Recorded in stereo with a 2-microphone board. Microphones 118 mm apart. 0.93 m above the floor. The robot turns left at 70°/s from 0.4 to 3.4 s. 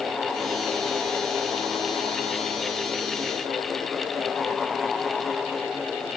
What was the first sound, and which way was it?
Only background noise.